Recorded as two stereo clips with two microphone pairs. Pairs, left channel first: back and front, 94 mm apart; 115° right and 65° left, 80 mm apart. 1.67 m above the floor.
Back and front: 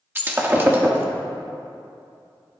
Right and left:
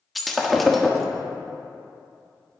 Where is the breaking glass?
25° right, 1.1 m.